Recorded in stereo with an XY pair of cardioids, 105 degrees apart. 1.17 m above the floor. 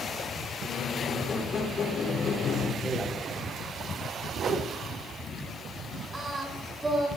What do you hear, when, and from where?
0.6 s a squeak: 55° left, 3 m
2.8 s a man speaking: straight ahead, 3.5 m
4.4 s a whoosh: 55° right, 1.8 m
6.1 s singing: 15° right, 6 m